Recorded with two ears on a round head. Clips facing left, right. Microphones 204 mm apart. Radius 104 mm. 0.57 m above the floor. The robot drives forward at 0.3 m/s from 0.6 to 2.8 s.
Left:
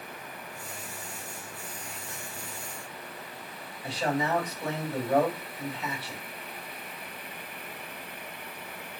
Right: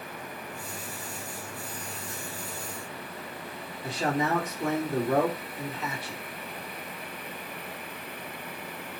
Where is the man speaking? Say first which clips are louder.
Right 1 dB; 40° right (ahead or behind), 1.2 m.